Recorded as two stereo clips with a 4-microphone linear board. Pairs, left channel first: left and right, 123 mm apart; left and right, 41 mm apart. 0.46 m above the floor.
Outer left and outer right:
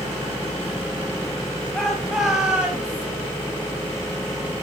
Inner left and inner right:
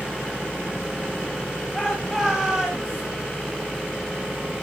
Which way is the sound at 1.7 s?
5° left (ahead or behind).